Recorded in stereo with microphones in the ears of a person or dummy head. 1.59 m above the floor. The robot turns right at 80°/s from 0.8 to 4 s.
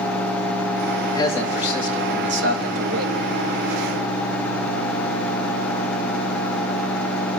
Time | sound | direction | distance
1.0 | a man speaking | 140° left | 3 m